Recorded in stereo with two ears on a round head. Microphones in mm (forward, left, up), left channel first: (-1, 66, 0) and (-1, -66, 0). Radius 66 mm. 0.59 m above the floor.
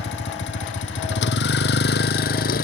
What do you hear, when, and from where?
0.0 s a vehicle: 80° left; by 2.6 s 60° left (ahead or behind)